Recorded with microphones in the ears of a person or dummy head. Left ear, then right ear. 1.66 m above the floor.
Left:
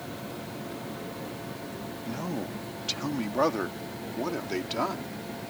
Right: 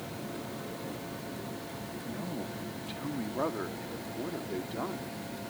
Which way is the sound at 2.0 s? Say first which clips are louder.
Left 5 dB; 75° left (ahead or behind).